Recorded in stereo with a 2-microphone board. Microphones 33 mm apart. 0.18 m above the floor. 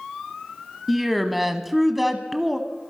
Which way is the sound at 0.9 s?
5° right (ahead or behind).